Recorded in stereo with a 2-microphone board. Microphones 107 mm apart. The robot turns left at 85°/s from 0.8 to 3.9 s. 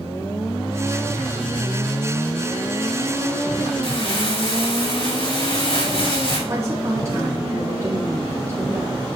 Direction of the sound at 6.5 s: 30° right (ahead or behind).